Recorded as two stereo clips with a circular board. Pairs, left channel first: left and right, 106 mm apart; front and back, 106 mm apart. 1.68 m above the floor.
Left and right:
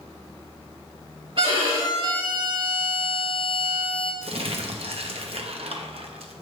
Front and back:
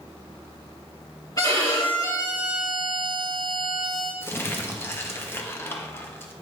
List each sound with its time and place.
1.4 s a violin: 55° right, 2.5 m
4.2 s crumpling: 70° right, 0.9 m